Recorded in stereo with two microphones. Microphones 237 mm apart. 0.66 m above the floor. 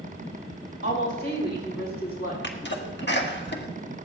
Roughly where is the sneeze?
Left.